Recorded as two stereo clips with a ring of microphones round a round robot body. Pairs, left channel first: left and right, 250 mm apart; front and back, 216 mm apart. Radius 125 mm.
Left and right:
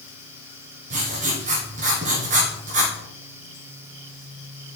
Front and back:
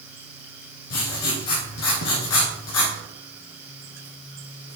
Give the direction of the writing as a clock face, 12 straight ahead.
1 o'clock.